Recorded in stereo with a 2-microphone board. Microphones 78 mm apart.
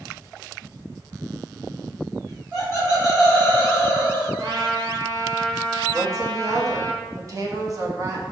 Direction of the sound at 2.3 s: 20° right (ahead or behind).